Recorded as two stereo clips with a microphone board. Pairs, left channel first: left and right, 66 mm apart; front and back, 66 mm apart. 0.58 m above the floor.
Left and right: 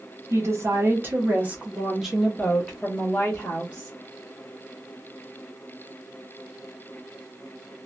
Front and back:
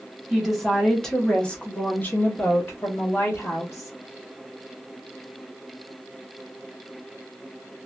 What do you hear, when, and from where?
0.3 s a woman speaking: 95° right, 1.2 m; by 3.9 s 35° left, 1.5 m